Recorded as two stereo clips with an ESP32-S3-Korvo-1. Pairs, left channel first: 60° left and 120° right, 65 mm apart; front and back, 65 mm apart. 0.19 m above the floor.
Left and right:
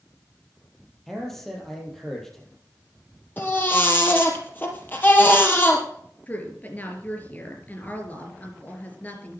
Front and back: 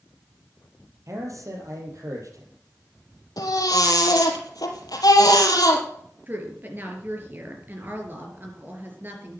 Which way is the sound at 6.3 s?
125° left.